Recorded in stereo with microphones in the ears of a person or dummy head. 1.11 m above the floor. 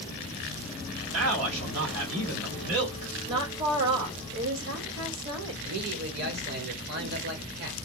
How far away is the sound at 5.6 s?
About 1.2 m.